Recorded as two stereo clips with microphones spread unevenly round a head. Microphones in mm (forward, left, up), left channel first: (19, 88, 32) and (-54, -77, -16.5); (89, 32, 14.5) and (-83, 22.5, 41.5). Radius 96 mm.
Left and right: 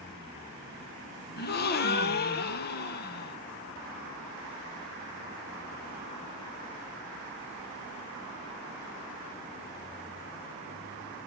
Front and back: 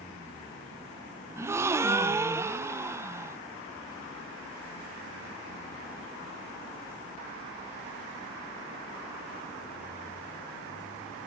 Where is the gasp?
105° left, 0.8 m.